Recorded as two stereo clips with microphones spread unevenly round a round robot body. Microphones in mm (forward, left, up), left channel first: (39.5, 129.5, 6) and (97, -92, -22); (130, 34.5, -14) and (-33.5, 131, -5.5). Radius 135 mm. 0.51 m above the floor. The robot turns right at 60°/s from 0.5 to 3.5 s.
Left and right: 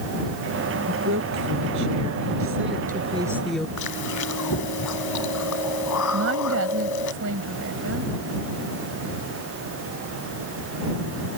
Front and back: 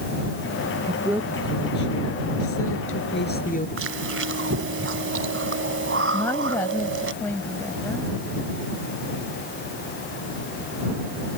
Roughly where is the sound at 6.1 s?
Behind right.